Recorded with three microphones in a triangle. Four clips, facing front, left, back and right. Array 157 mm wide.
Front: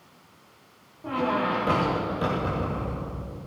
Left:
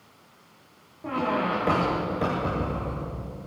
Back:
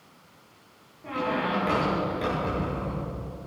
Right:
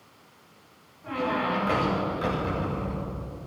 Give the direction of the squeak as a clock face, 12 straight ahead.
10 o'clock.